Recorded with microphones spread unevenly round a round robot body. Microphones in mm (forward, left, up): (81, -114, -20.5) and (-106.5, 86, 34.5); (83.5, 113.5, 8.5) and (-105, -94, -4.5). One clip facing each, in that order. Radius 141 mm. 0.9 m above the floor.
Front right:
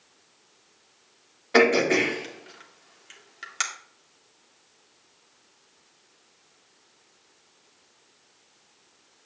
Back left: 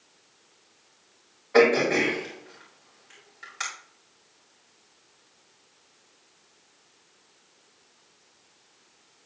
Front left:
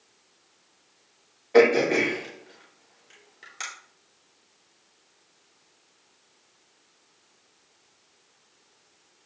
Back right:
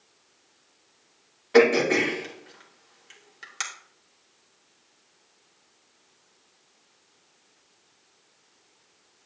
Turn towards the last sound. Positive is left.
turn(degrees=-70)